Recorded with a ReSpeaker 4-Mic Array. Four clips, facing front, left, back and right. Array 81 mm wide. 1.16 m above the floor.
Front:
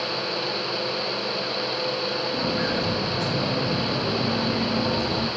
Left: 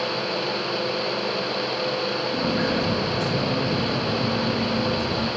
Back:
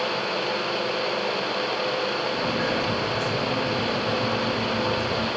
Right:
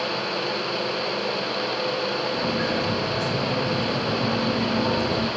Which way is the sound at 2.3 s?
65° left.